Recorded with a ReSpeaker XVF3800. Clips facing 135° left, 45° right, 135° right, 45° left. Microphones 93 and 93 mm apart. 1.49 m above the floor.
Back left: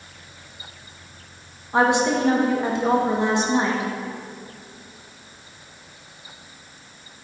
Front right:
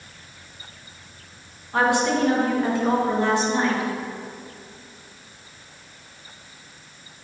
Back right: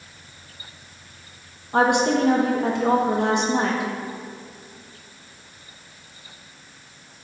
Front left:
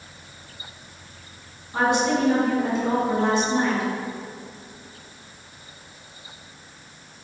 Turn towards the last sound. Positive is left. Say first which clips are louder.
# back left 2 dB, back right 3 dB
turn(degrees=-155)